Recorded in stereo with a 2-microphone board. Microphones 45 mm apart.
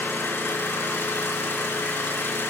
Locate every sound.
0.0 s an engine running: 60° left (ahead or behind), 2 m